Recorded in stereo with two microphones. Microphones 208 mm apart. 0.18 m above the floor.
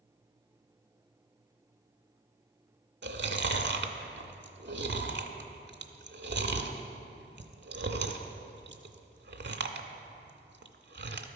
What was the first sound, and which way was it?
Chewing, 60° right (ahead or behind).